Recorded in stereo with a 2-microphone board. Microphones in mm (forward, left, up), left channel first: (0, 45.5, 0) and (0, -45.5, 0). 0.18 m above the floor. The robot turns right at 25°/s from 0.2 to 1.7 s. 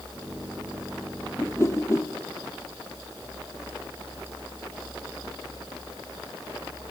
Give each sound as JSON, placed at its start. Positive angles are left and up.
{"t": 1.4, "sound": "a whoosh", "side_deg": 20, "distance_m": 2.5}